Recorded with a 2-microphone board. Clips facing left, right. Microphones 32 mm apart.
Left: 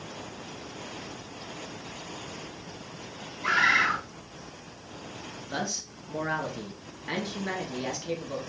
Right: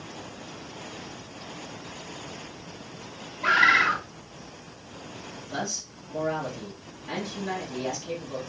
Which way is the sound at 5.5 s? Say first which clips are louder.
Even; 35° left (ahead or behind).